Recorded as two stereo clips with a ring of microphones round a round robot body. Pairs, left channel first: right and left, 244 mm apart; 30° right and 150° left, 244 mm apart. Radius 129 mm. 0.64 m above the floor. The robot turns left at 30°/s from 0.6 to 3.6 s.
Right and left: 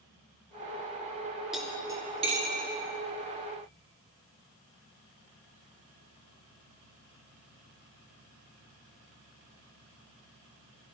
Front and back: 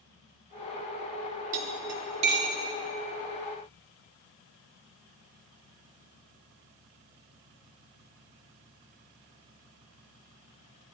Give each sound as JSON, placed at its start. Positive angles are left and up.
{"t": 1.5, "sound": "cutlery clinking", "azimuth_deg": 180, "distance_m": 1.6}